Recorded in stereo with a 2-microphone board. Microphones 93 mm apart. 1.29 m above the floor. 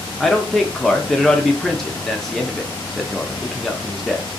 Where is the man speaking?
5° left (ahead or behind), 0.5 m.